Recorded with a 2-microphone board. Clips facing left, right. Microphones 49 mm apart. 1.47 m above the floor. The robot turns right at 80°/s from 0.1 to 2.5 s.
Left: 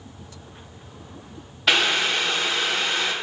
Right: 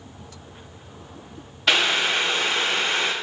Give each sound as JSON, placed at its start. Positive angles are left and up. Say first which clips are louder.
{"t": 1.7, "sound": "boiling", "louder": "even", "azimuth_deg": 175, "distance_m": 0.6}